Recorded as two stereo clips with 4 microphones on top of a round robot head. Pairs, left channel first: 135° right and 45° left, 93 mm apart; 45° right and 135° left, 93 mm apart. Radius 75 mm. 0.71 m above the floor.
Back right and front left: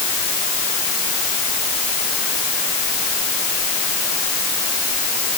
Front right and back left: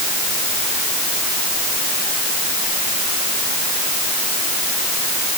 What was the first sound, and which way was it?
Only background noise.